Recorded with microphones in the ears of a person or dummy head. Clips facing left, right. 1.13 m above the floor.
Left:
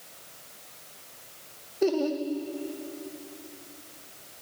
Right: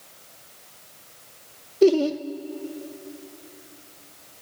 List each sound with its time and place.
1.8 s laughter: 45° right (ahead or behind), 0.6 m